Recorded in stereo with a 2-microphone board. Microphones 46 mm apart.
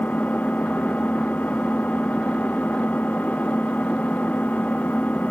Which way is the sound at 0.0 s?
40° left (ahead or behind).